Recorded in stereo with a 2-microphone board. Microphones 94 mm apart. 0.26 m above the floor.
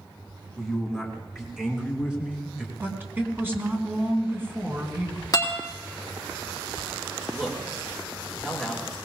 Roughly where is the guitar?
Left.